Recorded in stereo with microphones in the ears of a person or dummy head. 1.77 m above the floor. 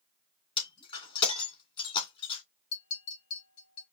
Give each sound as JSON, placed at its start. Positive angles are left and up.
{"t": 0.6, "sound": "breaking glass", "side_deg": 30, "distance_m": 3.0}
{"t": 2.7, "sound": "a clink", "side_deg": 55, "distance_m": 3.0}